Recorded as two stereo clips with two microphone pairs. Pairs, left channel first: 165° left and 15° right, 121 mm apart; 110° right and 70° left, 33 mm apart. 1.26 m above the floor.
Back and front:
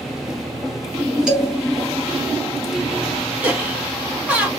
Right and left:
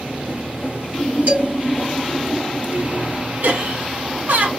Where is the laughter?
60° left, 1.7 m.